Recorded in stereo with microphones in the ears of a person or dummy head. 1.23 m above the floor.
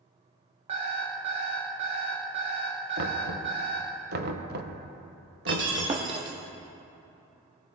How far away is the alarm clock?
About 1.4 m.